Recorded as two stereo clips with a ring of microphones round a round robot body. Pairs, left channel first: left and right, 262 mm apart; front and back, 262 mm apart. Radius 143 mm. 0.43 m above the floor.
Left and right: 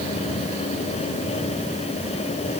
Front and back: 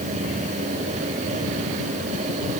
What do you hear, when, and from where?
Only background noise.